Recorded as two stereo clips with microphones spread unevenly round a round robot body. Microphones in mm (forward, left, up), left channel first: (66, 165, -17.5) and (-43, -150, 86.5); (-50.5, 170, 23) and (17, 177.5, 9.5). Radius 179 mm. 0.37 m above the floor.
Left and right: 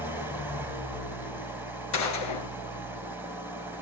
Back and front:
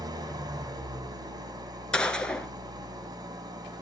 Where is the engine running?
20° right, 2.5 m.